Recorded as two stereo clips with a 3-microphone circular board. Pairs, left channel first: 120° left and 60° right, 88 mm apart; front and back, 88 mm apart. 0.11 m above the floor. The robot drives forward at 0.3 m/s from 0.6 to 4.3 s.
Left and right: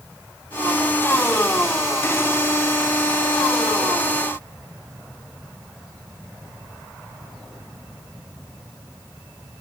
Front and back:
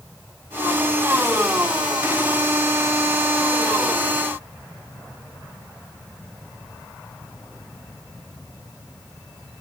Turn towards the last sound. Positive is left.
No sound to turn to.